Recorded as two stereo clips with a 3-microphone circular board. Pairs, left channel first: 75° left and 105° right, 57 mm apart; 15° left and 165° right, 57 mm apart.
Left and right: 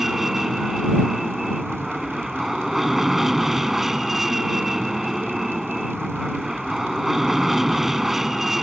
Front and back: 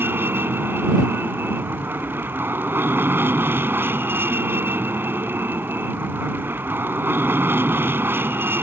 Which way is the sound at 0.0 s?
175° left.